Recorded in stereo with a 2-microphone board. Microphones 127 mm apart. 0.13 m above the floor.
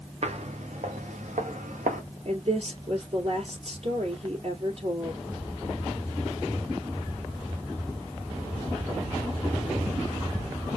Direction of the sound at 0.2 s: 55° right (ahead or behind).